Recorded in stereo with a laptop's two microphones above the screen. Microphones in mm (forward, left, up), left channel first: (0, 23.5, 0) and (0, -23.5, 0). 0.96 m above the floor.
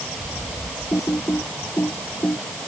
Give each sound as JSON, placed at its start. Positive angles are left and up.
{"t": 0.9, "sound": "typing on a keyboard", "side_deg": 80}